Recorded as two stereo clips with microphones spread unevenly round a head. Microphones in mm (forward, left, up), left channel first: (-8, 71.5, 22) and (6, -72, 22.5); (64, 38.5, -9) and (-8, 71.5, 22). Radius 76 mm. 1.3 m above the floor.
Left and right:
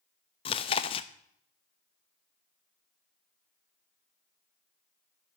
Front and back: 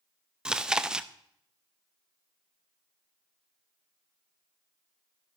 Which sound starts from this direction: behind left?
Chewing, at 0.5 s.